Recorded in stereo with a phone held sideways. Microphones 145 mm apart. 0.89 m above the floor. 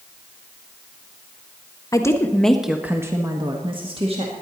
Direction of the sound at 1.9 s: 25° left (ahead or behind).